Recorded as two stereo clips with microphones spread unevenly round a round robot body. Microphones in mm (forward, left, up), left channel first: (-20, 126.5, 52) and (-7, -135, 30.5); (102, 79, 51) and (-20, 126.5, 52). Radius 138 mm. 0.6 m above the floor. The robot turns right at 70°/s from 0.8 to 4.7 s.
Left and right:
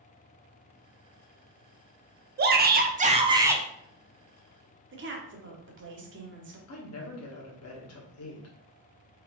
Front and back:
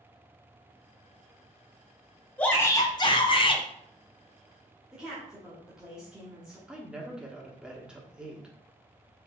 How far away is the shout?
About 0.8 m.